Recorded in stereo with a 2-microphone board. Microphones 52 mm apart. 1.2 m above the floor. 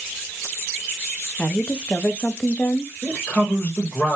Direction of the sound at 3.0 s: 30° left (ahead or behind).